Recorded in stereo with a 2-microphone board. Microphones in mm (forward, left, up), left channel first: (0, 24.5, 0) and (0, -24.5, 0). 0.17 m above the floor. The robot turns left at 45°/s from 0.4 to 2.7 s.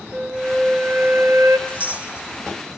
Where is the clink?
30° right (ahead or behind), 1.0 m; by 2.8 s 15° right (ahead or behind), 1.0 m.